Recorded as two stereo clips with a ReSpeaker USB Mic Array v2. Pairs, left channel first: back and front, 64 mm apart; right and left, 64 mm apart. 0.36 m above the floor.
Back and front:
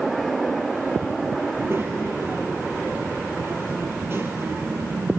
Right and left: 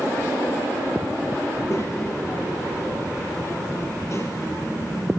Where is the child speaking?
50° right, 5.5 m.